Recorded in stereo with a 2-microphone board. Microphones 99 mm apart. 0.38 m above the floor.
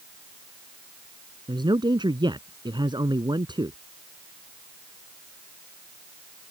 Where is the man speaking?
50° right (ahead or behind).